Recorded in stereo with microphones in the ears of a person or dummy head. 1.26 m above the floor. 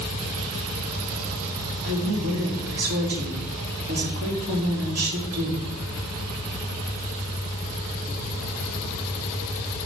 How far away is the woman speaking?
About 2.5 m.